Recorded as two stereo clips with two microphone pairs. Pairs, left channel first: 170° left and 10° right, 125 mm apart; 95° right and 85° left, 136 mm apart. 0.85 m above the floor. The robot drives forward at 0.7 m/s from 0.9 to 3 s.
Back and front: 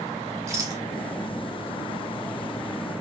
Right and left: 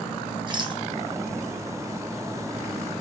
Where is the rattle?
45° left, 1.0 m.